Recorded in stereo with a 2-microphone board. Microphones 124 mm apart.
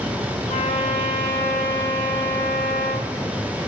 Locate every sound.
0.5 s a trumpet: 75° left (ahead or behind), 4.5 m